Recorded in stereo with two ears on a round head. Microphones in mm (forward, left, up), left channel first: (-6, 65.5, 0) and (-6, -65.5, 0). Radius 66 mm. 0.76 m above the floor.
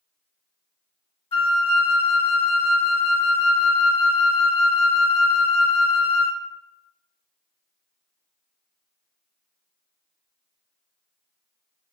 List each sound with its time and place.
1.3 s a flute: 35° left (ahead or behind), 0.6 m